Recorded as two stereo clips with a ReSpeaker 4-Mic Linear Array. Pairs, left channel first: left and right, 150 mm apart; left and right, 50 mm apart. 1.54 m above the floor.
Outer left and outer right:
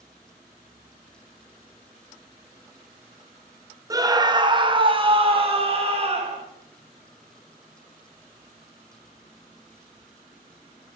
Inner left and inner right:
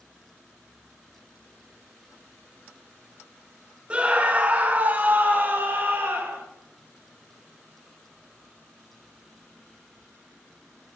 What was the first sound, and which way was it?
A scream, 20° right (ahead or behind).